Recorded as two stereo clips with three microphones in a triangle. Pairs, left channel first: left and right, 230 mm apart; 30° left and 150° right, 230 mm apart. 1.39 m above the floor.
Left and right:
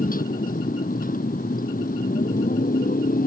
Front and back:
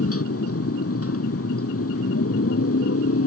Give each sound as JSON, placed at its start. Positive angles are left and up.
{"t": 0.0, "sound": "a motorcycle", "azimuth_deg": 40}